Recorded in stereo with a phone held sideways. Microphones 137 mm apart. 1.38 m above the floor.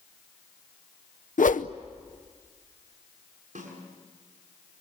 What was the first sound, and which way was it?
A whoosh, 80° left.